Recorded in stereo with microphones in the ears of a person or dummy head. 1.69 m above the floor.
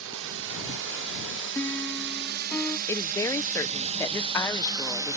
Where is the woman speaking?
15° left (ahead or behind).